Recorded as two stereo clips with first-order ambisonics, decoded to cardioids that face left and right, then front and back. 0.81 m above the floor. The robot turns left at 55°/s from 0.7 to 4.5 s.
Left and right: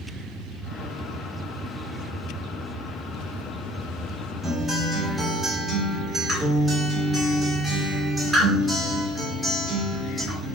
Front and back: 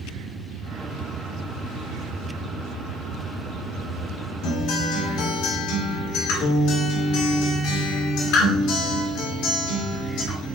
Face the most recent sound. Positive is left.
turn(degrees=0)